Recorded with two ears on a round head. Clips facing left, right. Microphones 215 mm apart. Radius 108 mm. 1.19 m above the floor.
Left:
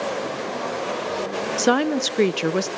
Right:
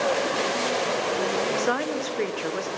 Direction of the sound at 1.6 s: 55° left (ahead or behind).